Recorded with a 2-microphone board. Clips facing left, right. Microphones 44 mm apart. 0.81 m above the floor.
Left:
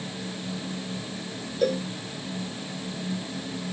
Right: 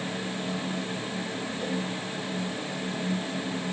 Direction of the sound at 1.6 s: 85° left.